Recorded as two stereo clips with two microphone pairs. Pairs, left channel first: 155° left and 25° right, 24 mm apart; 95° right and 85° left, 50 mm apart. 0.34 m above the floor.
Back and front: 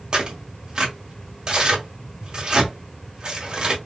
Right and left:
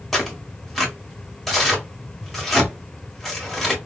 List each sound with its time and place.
0.1 s tearing paper: 10° right, 1.8 m